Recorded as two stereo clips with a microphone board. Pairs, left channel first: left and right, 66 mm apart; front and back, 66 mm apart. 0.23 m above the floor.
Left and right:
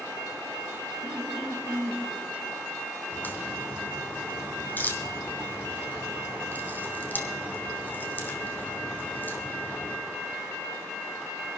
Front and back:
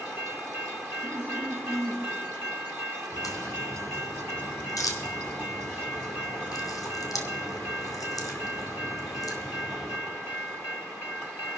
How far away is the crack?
About 1.7 m.